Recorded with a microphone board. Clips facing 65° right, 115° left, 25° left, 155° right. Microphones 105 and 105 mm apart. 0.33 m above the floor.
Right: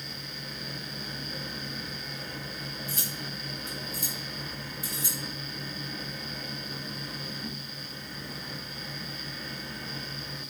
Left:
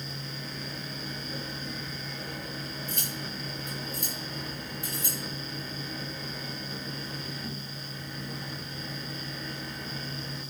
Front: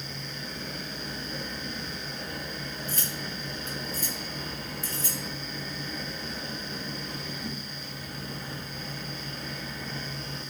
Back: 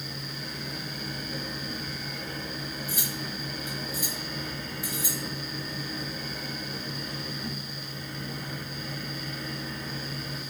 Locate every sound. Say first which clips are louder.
2.9 s cutlery clinking: left 1 dB, back 1 dB; 130° left, 1.2 m